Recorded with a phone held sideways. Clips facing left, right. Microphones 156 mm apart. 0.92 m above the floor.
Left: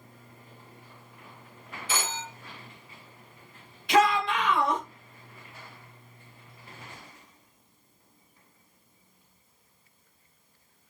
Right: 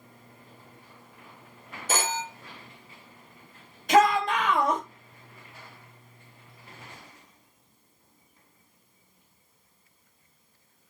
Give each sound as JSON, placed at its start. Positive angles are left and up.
{"t": 1.9, "sound": "a phone ringing", "side_deg": -45, "distance_m": 0.5}
{"t": 3.9, "sound": "a shout", "side_deg": -45, "distance_m": 0.9}